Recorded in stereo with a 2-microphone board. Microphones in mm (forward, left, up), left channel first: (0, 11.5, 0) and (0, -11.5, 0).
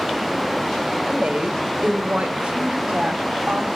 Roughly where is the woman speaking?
Right.